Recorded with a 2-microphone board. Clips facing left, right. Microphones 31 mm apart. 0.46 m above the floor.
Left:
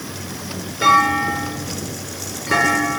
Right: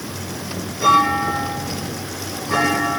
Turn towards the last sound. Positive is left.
turn(degrees=50)  # may be behind; listen again after turning